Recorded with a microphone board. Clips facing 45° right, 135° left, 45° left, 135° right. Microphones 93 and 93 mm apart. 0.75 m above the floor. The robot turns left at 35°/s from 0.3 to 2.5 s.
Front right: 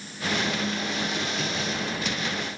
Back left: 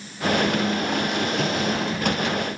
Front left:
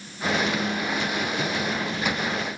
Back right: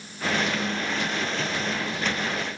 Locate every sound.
Only background noise.